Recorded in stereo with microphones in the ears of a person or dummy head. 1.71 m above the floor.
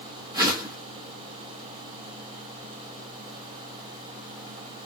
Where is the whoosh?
25° right (ahead or behind), 1.5 m.